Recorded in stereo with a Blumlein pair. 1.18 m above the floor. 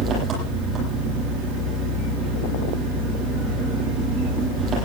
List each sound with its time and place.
0.0 s an engine running: 25° right, 10 m